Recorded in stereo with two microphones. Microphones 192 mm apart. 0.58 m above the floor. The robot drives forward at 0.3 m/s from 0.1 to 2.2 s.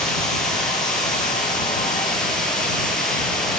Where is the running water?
5° left (ahead or behind), 7.5 m.